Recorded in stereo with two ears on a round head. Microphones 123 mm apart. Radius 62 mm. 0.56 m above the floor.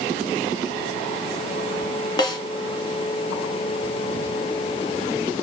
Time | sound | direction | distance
2.2 | a snare drum | 30° left (ahead or behind) | 1.5 m